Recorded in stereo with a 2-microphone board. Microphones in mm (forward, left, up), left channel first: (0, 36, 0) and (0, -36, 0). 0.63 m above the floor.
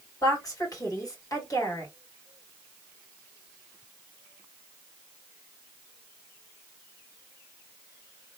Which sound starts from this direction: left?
A woman speaking, at 0.2 s.